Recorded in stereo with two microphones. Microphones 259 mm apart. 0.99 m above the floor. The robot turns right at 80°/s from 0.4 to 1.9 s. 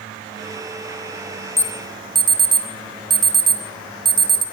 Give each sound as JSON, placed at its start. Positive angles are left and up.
{"t": 1.6, "sound": "an alarm", "side_deg": 10, "distance_m": 3.0}